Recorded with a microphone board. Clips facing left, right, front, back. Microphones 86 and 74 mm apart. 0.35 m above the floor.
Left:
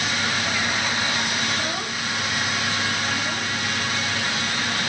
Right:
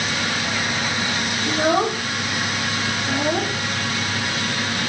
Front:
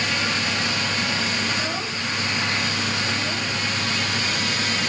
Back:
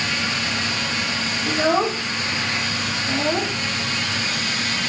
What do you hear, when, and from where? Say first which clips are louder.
1.5 s a child speaking: right 9 dB, back 8 dB; 135° right